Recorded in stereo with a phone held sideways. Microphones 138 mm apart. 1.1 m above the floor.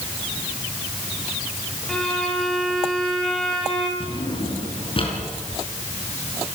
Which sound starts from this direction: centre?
A violin, at 1.9 s.